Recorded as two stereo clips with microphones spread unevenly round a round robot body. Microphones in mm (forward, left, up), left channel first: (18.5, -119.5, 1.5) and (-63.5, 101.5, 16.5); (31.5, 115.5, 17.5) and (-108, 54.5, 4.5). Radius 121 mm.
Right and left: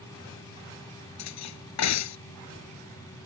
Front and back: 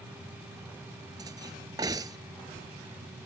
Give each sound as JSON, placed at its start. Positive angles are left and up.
{"t": 1.2, "sound": "cutlery clinking", "azimuth_deg": -80}